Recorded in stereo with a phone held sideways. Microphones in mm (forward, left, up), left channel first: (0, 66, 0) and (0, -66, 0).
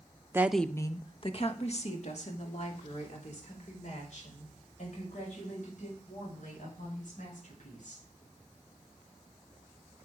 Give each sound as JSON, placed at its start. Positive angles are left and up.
{"t": 0.3, "sound": "a woman speaking", "side_deg": -20, "distance_m": 0.8}